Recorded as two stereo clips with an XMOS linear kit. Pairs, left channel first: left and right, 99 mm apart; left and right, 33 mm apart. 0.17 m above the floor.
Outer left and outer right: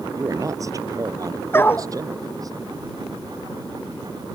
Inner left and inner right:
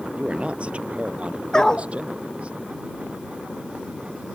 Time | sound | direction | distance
0.1 | a man speaking | 35° right (ahead or behind) | ?
1.5 | a dog barking | 25° left (ahead or behind) | ?